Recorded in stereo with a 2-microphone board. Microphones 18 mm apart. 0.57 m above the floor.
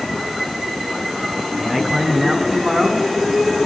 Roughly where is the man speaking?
Right.